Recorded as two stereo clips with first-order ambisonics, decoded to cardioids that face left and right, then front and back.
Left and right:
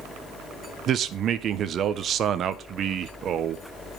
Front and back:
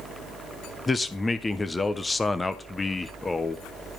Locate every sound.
0.9 s a man speaking: 70° right, 0.6 m